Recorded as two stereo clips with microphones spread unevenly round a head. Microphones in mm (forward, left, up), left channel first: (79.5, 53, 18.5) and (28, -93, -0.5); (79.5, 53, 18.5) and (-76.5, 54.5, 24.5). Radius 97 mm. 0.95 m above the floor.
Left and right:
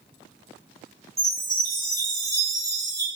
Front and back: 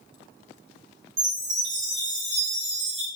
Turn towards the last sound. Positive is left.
turn(degrees=175)